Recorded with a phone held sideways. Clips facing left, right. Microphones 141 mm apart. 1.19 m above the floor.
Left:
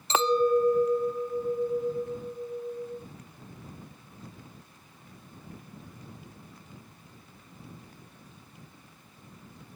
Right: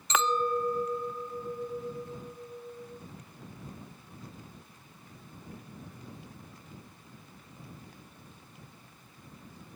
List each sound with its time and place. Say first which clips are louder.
0.1 s a clink: left 6 dB; 30° left (ahead or behind)